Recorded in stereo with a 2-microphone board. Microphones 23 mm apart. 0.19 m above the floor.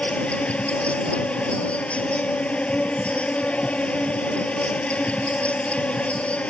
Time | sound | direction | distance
0.0 | an insect | 75° left (ahead or behind) | ?